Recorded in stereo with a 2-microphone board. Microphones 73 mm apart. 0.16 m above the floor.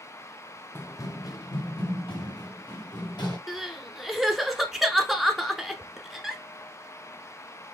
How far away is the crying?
About 0.8 m.